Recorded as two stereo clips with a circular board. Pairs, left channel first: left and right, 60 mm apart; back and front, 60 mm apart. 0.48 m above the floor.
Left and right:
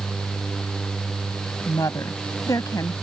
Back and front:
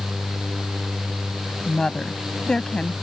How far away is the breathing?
No breathing in this recording.